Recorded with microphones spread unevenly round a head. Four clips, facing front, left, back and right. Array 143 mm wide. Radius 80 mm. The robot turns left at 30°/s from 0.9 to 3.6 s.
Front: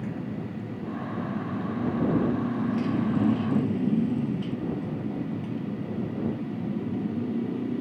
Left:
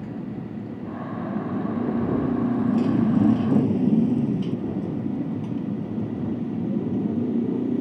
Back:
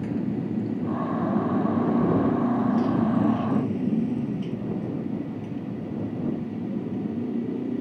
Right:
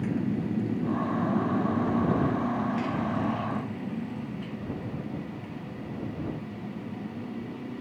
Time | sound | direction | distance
0.0 | a motorcycle | 170° right | ?